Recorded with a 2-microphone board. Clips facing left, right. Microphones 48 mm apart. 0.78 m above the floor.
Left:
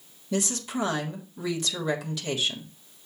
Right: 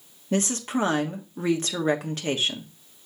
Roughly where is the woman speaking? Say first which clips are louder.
Right 4 dB; right.